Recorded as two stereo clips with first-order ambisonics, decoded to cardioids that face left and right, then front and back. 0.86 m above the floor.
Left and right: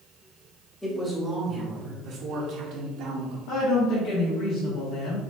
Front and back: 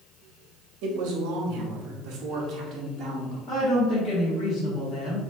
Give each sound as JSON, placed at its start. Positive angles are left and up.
{"t": 0.8, "sound": "a man speaking", "azimuth_deg": 175, "distance_m": 0.9}
{"t": 3.5, "sound": "a woman speaking", "azimuth_deg": 65, "distance_m": 1.3}